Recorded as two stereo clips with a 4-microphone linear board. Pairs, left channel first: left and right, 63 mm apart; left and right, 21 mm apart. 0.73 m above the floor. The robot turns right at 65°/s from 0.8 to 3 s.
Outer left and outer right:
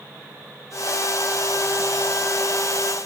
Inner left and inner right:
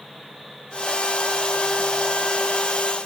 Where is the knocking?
No knocking in this recording.